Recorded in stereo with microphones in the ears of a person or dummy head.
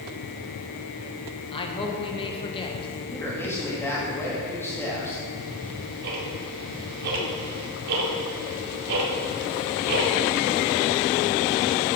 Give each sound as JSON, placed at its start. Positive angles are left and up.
{"t": 1.5, "sound": "a man speaking", "side_deg": 30, "distance_m": 1.5}
{"t": 3.1, "sound": "a man speaking", "side_deg": 15, "distance_m": 2.5}
{"t": 5.4, "sound": "ticking", "side_deg": -55, "distance_m": 2.5}